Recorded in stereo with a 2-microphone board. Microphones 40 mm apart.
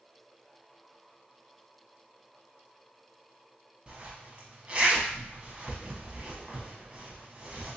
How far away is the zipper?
About 0.9 m.